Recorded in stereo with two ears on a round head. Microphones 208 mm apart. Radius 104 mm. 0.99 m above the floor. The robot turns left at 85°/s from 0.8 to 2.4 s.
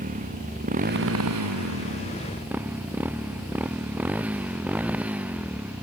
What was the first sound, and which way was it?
A motorcycle, 35° right (ahead or behind).